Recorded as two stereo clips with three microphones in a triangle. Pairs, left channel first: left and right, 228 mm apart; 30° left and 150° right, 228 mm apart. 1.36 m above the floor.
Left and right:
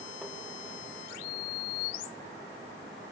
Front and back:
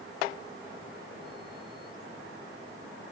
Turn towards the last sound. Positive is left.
No sound to turn to.